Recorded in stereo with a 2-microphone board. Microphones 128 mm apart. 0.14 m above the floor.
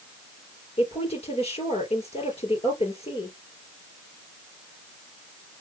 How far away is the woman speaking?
About 4 m.